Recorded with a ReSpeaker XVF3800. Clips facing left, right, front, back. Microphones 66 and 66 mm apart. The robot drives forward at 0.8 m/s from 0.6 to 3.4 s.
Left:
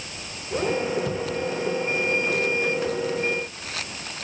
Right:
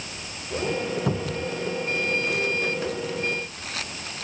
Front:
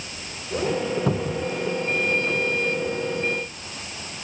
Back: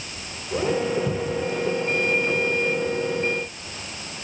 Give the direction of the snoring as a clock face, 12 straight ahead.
I don't hear snoring.